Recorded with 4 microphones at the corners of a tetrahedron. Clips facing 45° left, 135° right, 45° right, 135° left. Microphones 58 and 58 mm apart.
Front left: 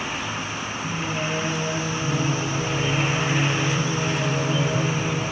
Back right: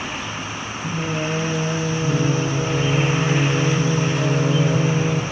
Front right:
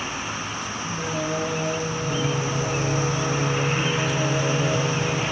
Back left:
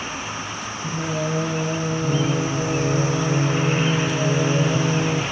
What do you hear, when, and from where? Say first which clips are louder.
0.8 s singing: back right 4 dB, back left 3 dB; 170° right, 4.5 m